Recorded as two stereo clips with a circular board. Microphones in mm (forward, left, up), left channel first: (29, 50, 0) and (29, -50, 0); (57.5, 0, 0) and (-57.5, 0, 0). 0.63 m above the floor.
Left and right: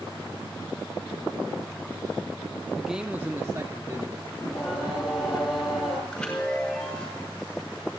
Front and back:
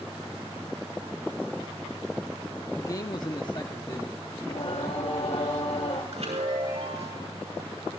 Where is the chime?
175° left, 7 m.